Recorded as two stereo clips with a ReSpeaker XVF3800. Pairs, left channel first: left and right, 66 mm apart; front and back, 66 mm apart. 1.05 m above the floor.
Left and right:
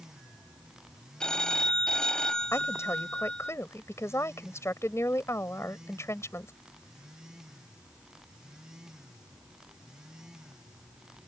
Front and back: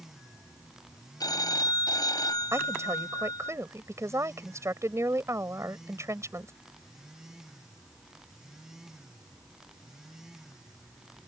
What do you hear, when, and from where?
1.2 s a phone ringing: 10° left
2.5 s a woman speaking: 135° left